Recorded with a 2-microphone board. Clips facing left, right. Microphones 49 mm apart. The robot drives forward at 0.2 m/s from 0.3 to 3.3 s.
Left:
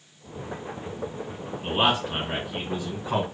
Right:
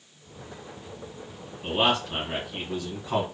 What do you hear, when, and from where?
1.6 s a man speaking: 15° left (ahead or behind), 1.4 m